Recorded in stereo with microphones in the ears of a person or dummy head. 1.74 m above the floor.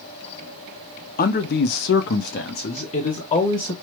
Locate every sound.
1.2 s a man speaking: 45° left (ahead or behind), 0.6 m; by 3.7 s 40° left (ahead or behind), 1.3 m